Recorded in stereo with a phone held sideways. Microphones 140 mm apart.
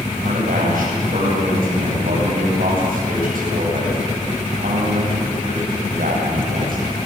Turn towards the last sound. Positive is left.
turn(degrees=-85)